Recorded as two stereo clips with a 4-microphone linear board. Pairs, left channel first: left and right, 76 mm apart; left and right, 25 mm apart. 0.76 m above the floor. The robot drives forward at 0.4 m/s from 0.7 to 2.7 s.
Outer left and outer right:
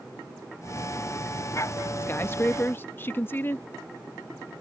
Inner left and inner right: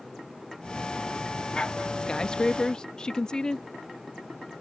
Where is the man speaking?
30° left (ahead or behind).